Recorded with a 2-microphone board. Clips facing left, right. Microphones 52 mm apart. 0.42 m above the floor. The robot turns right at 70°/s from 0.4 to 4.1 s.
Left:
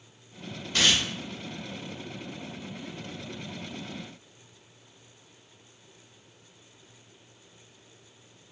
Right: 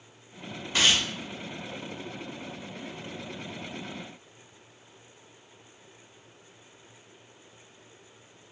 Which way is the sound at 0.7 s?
10° right (ahead or behind).